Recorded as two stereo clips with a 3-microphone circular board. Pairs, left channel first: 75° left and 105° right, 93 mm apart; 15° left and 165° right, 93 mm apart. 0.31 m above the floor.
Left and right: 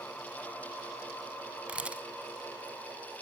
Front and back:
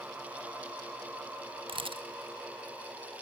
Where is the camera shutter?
Straight behind, 0.8 m.